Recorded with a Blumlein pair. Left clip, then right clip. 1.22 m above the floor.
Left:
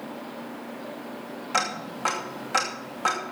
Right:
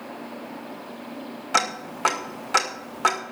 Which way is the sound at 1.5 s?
45° right.